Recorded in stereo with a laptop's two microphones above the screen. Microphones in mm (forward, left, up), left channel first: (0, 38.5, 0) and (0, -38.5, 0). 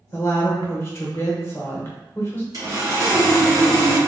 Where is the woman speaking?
30° left (ahead or behind), 1.1 m.